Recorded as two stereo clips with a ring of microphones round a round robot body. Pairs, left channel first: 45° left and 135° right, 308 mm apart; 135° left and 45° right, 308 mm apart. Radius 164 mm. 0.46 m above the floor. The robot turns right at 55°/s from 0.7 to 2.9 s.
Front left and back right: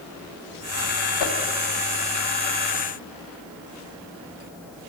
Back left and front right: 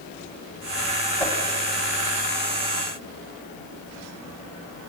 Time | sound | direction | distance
1.2 | a whoosh | 50° left | 2.5 m